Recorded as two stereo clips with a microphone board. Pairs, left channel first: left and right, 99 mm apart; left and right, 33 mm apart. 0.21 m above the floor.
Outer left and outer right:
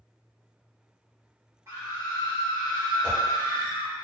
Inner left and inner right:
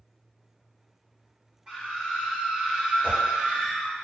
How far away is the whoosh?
About 1.2 m.